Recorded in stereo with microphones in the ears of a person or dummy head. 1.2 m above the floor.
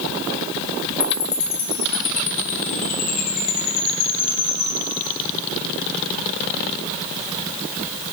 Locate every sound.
1.0 s a chime: 40° left (ahead or behind), 0.8 m